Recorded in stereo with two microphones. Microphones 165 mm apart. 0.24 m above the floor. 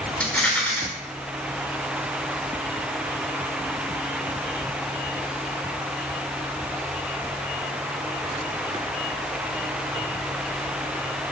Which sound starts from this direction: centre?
A rattle, at 0.2 s.